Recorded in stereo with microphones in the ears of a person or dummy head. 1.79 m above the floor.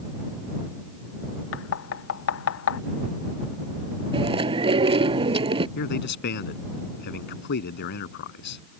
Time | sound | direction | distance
1.5 | knocking | 75° left (ahead or behind) | ?
4.1 | chewing | 35° right (ahead or behind) | ?
5.8 | a man speaking | 50° left (ahead or behind) | ?